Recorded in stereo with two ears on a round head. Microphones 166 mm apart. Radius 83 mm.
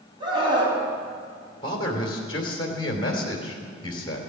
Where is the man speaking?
25° left (ahead or behind), 3 m.